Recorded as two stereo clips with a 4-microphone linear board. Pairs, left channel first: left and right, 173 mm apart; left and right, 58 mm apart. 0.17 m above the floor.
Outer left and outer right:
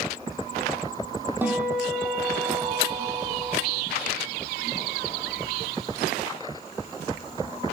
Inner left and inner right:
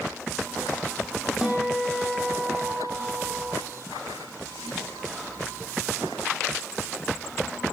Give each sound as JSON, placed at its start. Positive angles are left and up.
{"t": 1.4, "sound": "a guitar", "side_deg": -10, "distance_m": 5.5}